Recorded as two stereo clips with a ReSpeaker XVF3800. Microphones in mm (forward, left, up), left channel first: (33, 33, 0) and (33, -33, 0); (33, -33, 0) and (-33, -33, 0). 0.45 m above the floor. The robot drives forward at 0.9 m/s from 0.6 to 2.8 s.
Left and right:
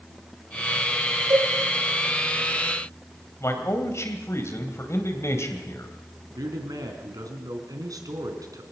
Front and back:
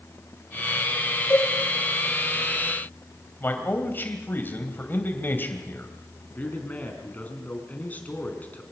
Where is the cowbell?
65° right, 6 m.